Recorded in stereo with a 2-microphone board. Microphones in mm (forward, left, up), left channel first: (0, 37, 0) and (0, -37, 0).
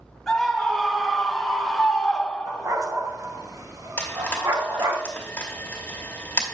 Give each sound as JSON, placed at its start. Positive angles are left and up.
{"t": 0.3, "sound": "a scream", "side_deg": 5, "distance_m": 3.0}
{"t": 2.5, "sound": "a dog barking", "side_deg": -55, "distance_m": 2.0}
{"t": 4.0, "sound": "frying", "side_deg": 25, "distance_m": 3.0}